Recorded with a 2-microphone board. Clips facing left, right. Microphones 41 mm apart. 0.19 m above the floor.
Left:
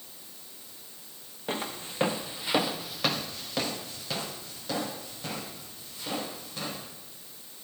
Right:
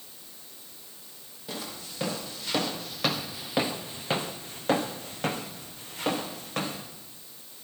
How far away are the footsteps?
About 2.5 m.